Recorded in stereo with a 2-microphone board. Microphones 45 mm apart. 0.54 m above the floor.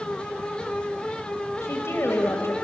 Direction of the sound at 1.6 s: 70° left (ahead or behind).